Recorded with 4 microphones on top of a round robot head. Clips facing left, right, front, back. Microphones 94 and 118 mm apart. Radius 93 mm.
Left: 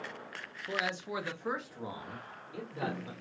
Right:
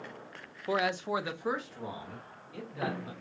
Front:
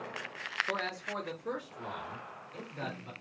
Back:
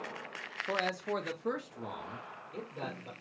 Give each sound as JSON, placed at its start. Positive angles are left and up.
{"t": 0.7, "sound": "a man speaking", "azimuth_deg": -110, "distance_m": 0.8}